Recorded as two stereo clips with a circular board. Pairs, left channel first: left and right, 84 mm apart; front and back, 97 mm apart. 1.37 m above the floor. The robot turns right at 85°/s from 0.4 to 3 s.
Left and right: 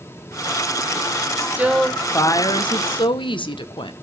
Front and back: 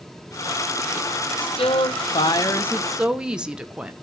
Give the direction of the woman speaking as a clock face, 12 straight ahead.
1 o'clock.